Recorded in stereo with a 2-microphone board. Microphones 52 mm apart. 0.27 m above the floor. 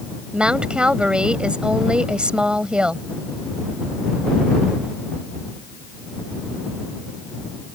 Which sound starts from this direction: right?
A woman speaking, at 0.3 s.